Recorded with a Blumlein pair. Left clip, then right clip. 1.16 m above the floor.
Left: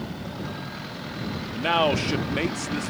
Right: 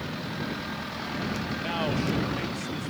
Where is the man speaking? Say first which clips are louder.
Left 10 dB; 30° left.